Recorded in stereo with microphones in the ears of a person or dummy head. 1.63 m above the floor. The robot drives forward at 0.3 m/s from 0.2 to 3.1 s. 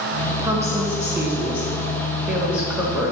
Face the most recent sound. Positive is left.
turn(degrees=-5)  # may be behind; listen again after turning